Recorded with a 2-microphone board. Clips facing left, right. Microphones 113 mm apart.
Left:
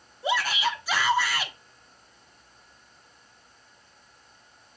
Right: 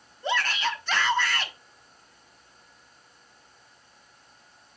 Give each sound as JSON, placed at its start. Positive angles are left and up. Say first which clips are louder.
{"t": 0.2, "sound": "a shout", "louder": "left 1 dB", "side_deg": 10, "distance_m": 0.7}